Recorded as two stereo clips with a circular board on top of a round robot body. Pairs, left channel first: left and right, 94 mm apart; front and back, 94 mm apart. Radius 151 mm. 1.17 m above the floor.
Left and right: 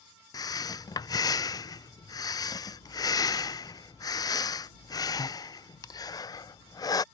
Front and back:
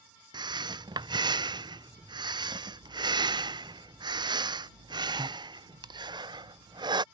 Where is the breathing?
140° left.